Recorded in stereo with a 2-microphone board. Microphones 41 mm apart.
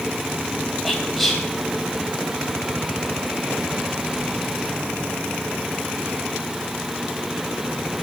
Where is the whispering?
5° left (ahead or behind), 3.5 m.